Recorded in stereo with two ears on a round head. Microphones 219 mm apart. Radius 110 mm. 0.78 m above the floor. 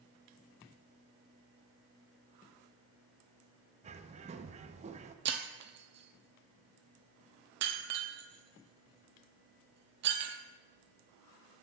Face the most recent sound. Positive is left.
turn(degrees=-50)  # may be behind; listen again after turning